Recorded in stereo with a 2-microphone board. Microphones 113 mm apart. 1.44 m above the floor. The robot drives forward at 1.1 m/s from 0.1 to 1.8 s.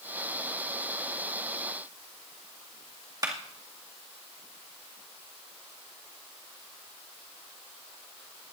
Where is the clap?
35° right (ahead or behind), 2 m.